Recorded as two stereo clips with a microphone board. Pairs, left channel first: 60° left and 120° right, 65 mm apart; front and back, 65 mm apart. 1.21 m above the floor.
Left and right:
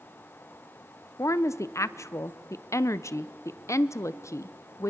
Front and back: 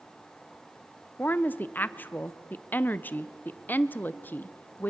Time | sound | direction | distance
1.2 | a woman speaking | 50° left | 0.6 m